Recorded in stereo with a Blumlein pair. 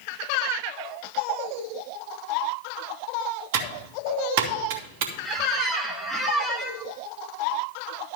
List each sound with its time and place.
3.5 s typing on a keyboard: 50° right, 1.5 m
5.2 s a squeak: 5° right, 1.2 m